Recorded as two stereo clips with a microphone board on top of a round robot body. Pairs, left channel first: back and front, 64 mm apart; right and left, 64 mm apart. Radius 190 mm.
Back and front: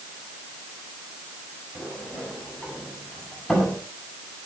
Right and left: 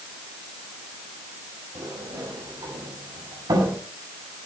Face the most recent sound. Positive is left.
turn(degrees=100)